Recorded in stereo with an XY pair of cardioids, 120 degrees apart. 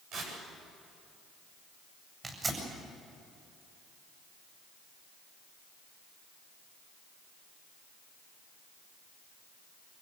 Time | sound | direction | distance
0.1 | tearing paper | 65° right | 9 m
2.2 | tearing paper | 25° right | 8 m